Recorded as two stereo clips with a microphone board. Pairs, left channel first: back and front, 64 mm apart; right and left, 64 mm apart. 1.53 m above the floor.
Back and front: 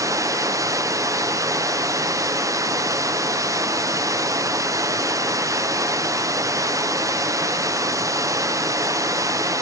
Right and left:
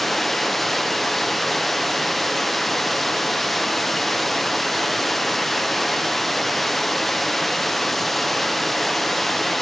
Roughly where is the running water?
Ahead.